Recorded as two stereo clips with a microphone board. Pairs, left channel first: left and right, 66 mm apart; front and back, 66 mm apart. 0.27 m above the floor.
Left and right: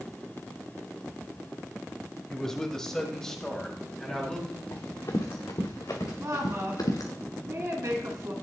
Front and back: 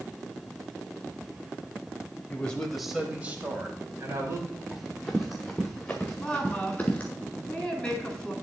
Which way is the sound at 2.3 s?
20° left.